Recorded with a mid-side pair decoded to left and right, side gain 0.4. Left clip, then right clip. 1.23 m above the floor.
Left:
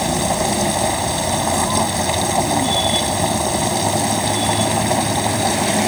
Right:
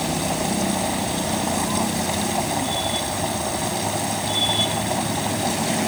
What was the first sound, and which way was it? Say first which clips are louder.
A machine running: left 5 dB; 45° left.